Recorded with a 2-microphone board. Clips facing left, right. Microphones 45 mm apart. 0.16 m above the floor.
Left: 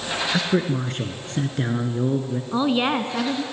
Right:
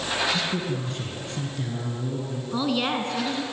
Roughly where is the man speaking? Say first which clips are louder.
Left 5 dB; left.